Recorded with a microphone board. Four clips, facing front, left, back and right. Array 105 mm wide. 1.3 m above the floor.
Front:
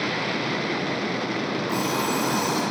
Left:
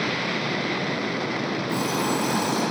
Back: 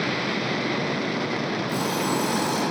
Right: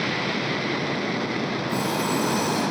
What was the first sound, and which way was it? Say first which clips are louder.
An alarm clock: even, front 1 dB; 5° left.